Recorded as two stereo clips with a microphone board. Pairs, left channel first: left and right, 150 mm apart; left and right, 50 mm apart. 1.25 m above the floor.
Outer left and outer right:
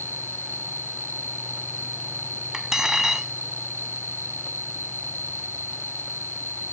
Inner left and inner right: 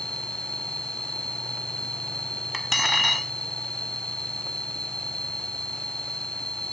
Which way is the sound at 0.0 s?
15° left (ahead or behind).